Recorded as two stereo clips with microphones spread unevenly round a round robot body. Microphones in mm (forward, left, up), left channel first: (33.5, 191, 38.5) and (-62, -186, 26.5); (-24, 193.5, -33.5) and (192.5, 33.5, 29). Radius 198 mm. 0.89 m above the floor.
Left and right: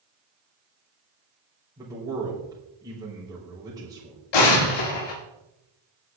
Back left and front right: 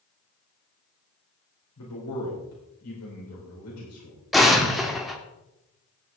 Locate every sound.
1.8 s a man speaking: 175° left, 4 m
4.3 s an explosion: 55° left, 2.5 m